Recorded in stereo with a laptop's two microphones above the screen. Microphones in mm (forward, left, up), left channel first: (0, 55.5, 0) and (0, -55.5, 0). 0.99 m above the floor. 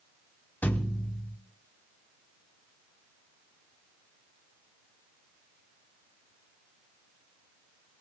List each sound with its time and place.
0.6 s a thud: 15° left (ahead or behind), 0.9 m